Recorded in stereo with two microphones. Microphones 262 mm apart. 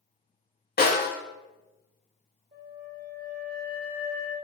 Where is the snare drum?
35° left (ahead or behind), 0.6 m.